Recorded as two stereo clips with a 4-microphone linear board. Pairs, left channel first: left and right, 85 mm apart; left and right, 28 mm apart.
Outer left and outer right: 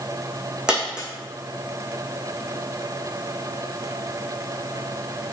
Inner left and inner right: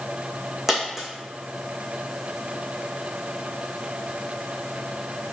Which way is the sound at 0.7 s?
10° right (ahead or behind).